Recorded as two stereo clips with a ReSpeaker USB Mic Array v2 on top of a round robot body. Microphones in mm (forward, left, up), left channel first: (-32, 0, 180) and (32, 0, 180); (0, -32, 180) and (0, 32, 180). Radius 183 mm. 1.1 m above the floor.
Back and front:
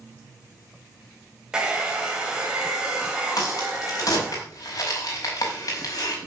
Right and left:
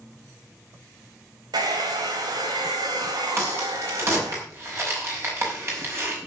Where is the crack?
145° left, 5.5 m.